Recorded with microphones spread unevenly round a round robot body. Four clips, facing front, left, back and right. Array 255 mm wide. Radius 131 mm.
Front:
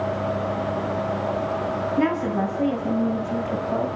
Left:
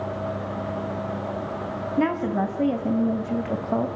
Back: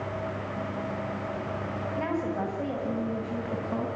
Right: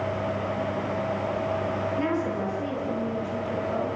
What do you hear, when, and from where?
2.0 s a woman speaking: 55° left, 3 m; by 3.9 s 95° left, 2.5 m